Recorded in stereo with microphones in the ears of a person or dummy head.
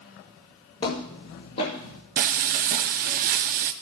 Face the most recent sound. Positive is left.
turn(degrees=-50)  # may be behind; listen again after turning